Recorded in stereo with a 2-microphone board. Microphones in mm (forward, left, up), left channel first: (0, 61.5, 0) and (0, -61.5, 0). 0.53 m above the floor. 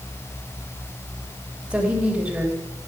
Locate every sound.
1.7 s a woman speaking: 10° right (ahead or behind), 3 m